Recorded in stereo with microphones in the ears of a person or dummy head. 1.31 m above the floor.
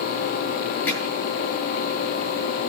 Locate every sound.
0.9 s hammering: 15° left (ahead or behind), 7.5 m